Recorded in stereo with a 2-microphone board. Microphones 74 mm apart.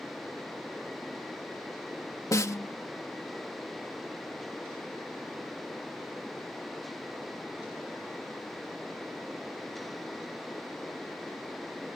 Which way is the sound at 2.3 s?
45° left (ahead or behind).